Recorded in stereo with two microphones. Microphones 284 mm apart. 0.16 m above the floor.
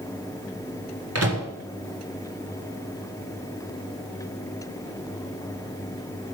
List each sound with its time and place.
1.1 s a microwave: 55° right (ahead or behind), 2.0 m